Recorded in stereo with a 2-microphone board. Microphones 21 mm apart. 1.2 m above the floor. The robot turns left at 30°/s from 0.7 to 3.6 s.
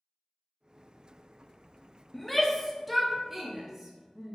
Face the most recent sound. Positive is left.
turn(degrees=-20)  # may be behind; listen again after turning